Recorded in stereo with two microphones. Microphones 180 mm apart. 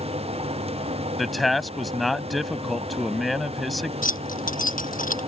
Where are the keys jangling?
50° left (ahead or behind).